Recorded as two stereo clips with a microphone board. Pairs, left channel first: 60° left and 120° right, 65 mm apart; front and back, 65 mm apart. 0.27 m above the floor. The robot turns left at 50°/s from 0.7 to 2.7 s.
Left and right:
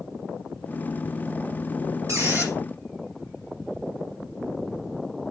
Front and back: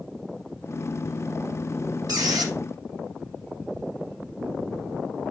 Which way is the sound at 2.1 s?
160° right.